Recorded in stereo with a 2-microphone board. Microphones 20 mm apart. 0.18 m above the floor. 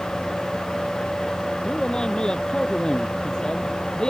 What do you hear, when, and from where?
1.6 s a man speaking: 45° left (ahead or behind); by 4.1 s 50° left (ahead or behind)